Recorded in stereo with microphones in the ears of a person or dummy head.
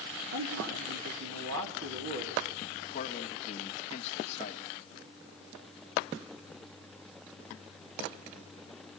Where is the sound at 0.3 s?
75° right (ahead or behind), 5 m.